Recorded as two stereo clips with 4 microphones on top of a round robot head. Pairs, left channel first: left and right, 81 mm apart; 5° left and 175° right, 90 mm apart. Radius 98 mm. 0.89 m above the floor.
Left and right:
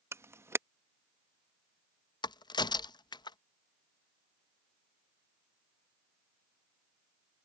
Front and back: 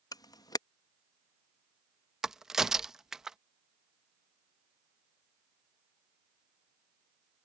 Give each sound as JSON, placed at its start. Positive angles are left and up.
{"t": 0.1, "sound": "a camera shutter", "azimuth_deg": -35}
{"t": 2.2, "sound": "a crack", "azimuth_deg": 105}